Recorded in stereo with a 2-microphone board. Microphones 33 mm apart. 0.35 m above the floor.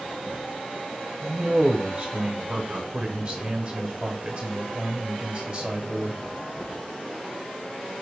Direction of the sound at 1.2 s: 25° right (ahead or behind).